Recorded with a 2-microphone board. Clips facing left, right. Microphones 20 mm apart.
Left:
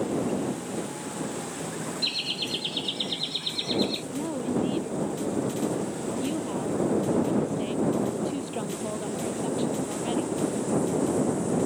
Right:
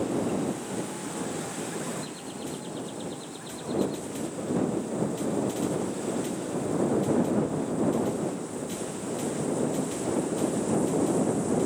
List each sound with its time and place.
2.0 s laughter: 60° left (ahead or behind); by 4.0 s 55° left (ahead or behind)
4.1 s a woman speaking: 70° left (ahead or behind)